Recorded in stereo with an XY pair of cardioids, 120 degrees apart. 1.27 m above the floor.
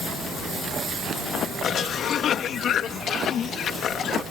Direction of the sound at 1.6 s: 55° left.